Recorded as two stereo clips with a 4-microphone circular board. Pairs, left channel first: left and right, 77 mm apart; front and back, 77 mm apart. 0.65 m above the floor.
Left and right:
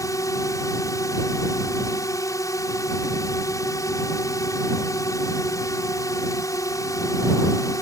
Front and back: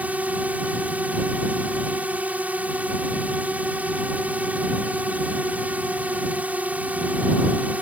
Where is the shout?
I don't hear a shout.